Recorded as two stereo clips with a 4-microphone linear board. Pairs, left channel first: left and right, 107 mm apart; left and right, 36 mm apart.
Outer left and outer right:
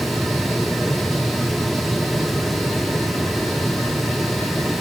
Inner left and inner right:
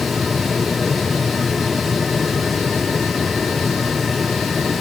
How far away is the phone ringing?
No phone ringing in this recording.